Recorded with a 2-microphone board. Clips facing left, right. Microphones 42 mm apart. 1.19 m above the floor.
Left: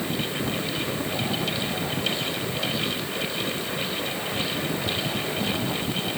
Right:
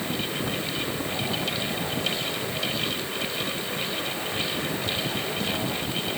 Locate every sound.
Only background noise.